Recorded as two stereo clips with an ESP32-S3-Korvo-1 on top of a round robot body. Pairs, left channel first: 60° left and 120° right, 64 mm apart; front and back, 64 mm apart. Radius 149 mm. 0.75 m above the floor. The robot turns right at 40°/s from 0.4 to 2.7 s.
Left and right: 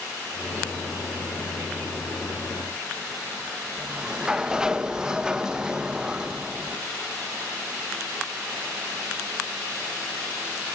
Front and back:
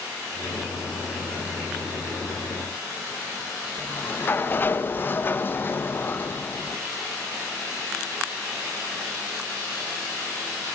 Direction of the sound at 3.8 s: 45° right.